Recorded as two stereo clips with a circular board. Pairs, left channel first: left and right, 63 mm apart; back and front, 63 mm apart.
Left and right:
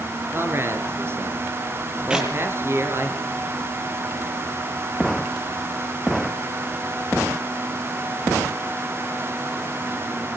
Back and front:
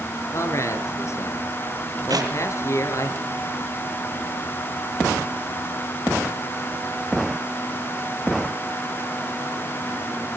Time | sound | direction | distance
0.3 | a man speaking | 140° right | 4.5 m
2.1 | a clap | 15° right | 7 m